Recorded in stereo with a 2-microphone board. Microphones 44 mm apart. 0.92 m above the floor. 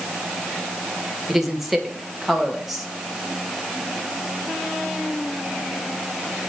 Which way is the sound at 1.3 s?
5° right (ahead or behind).